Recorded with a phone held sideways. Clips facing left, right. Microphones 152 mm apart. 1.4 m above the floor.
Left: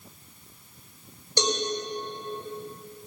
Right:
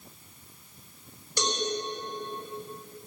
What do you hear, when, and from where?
1.4 s a cowbell: 25° left (ahead or behind), 5.5 m